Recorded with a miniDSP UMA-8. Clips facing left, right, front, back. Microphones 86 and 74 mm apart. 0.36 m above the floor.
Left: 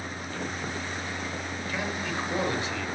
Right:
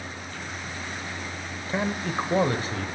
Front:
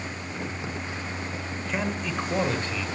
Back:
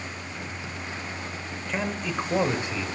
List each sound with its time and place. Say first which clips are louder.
1.7 s a man speaking: right 5 dB, even; 85° right, 1.5 m; by 2.9 s 115° right, 2.0 m